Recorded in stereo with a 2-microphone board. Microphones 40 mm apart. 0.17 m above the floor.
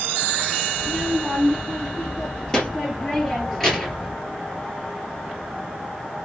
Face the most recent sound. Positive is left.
turn(degrees=5)  # may be behind; listen again after turning